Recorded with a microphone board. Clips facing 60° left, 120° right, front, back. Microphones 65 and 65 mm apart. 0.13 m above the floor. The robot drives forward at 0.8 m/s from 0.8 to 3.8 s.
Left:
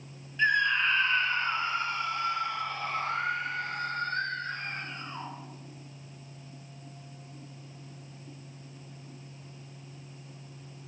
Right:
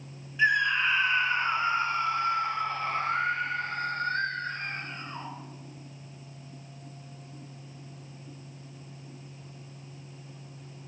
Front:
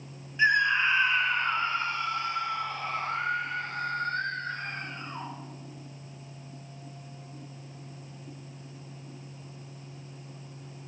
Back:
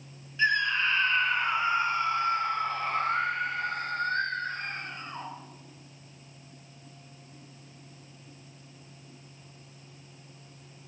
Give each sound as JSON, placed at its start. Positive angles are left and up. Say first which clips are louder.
{"t": 0.4, "sound": "a scream", "louder": "right 1 dB, front 3 dB", "azimuth_deg": -40, "distance_m": 1.2}